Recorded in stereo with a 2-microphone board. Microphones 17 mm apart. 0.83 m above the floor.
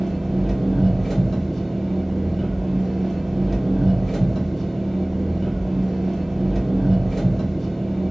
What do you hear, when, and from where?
0.0 s an engine running: 15° left (ahead or behind), 1.0 m